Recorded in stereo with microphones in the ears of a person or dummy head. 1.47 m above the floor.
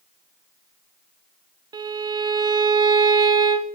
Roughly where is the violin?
Right.